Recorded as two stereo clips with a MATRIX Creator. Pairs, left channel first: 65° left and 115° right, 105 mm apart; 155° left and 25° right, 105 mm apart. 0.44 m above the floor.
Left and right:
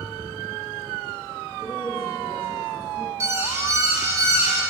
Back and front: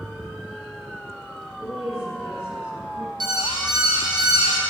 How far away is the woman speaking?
About 4.5 m.